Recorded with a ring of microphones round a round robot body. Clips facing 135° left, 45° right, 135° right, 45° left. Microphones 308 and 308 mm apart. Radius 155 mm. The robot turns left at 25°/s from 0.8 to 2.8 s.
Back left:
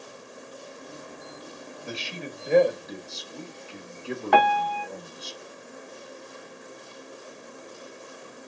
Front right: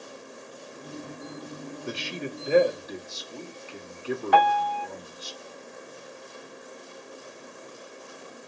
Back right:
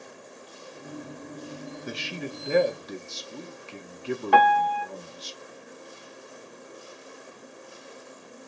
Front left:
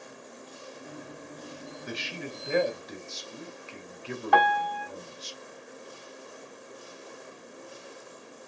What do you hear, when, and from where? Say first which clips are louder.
1.9 s a man speaking: front right 3 dB, back right 2 dB; 105° right, 1.1 m; by 5.3 s 130° right, 1.1 m
4.3 s a piano: back left 3 dB, back right 3 dB; 170° left, 1.0 m